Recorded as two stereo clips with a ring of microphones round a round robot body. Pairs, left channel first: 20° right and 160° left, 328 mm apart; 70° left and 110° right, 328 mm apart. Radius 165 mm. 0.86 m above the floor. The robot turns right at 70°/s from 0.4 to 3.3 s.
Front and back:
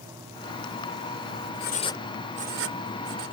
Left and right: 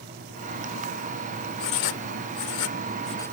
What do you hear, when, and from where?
1.6 s writing: 35° left; by 3.4 s 155° left